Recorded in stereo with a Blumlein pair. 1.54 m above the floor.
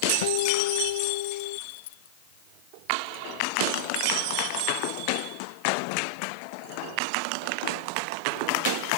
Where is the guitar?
55° left.